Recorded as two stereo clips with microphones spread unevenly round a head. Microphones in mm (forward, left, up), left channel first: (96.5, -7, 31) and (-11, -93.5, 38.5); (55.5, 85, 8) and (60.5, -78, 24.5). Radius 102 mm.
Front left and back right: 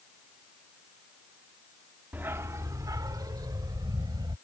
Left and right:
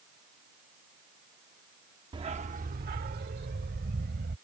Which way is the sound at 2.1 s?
75° right.